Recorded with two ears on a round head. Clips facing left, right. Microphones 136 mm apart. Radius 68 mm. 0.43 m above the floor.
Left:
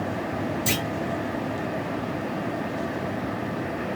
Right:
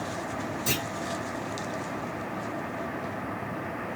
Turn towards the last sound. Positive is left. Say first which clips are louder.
# left 4 dB
turn(degrees=25)  # may be behind; listen again after turning